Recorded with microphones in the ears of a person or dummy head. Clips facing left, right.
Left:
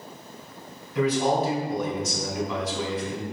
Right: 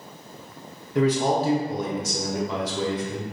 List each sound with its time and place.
0.9 s a man speaking: 30° right (ahead or behind), 0.8 m